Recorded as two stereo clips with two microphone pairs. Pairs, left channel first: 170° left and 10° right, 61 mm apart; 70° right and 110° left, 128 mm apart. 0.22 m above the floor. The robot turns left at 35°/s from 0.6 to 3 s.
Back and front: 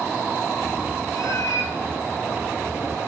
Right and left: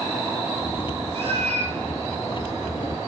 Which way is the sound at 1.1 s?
150° left.